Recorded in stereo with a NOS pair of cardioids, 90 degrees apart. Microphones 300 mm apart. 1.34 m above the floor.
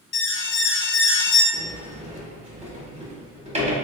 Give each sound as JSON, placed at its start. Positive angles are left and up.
{"t": 0.1, "sound": "an alarm", "azimuth_deg": 40, "distance_m": 0.6}
{"t": 1.5, "sound": "a sliding door", "azimuth_deg": -20, "distance_m": 1.5}